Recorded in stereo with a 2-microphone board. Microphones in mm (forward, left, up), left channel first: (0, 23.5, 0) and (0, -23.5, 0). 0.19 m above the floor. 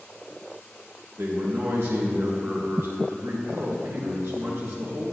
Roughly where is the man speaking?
Right.